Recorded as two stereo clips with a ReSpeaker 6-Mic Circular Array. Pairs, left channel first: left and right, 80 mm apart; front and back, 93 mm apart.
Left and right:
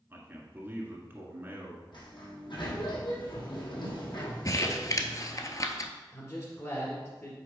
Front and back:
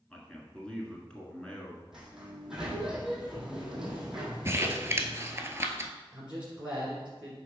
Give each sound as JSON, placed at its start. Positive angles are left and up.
{"t": 0.1, "sound": "a man speaking", "azimuth_deg": -70, "distance_m": 1.6}
{"t": 1.9, "sound": "a sliding door", "azimuth_deg": 95, "distance_m": 2.0}
{"t": 4.5, "sound": "crumpling", "azimuth_deg": 125, "distance_m": 0.7}
{"t": 6.1, "sound": "a man speaking", "azimuth_deg": 110, "distance_m": 2.0}